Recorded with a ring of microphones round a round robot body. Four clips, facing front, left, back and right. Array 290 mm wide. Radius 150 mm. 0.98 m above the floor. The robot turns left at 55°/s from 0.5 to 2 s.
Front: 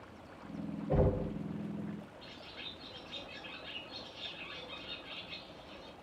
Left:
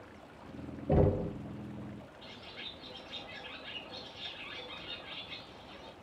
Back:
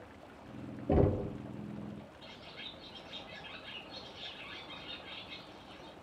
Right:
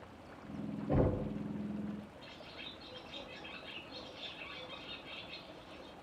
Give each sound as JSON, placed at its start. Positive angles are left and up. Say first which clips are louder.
{"t": 0.9, "sound": "knocking", "louder": "left 5 dB, back 2 dB", "azimuth_deg": 145, "distance_m": 1.6}
{"t": 2.2, "sound": "a bird", "louder": "left 1 dB, even", "azimuth_deg": 80, "distance_m": 1.9}